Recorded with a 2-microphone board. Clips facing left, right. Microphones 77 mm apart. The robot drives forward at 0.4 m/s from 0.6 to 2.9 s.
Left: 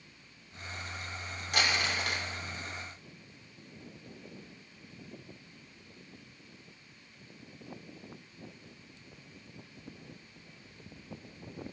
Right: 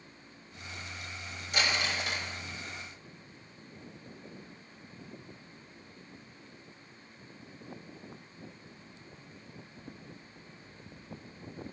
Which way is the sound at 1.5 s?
65° left (ahead or behind).